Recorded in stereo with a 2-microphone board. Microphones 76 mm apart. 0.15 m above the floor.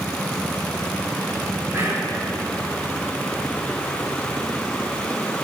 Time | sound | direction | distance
1.7 | whispering | 40° right (ahead or behind) | 1.3 m